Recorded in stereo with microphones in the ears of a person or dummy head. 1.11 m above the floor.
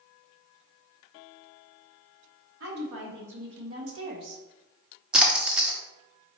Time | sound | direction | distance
2.6 | a woman speaking | 65° right (ahead or behind) | 2 m
5.1 | a splash | 5° right (ahead or behind) | 0.7 m